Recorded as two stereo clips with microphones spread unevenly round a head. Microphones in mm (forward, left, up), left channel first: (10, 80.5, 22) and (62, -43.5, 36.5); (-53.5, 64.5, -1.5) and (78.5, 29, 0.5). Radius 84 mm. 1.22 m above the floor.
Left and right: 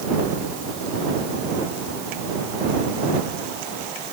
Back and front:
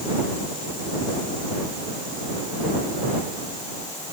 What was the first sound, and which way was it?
Only background noise.